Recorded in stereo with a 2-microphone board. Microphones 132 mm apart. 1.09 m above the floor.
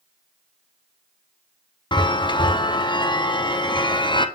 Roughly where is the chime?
Left.